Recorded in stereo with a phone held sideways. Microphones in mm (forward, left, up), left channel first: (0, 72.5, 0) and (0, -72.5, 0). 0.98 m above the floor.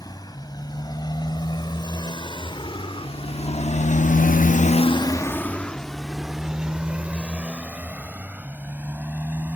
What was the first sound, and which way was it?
A motorcycle, 25° left (ahead or behind).